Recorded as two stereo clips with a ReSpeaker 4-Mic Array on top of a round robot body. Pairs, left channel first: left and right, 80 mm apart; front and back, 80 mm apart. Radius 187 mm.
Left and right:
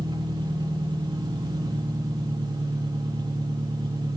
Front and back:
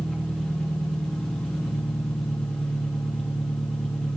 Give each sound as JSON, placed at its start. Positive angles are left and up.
{"t": 0.0, "sound": "an engine running", "azimuth_deg": -80, "distance_m": 3.5}